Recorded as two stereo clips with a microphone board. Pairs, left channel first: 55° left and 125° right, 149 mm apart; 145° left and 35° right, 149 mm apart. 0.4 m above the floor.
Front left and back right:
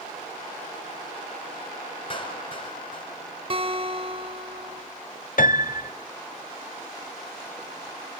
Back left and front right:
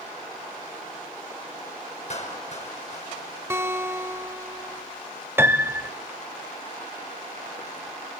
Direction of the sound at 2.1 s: 105° left.